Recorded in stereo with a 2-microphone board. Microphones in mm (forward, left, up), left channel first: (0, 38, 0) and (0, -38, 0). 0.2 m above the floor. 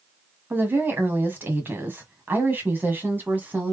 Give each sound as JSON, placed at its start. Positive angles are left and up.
{"t": 0.5, "sound": "a woman speaking", "side_deg": -25, "distance_m": 1.7}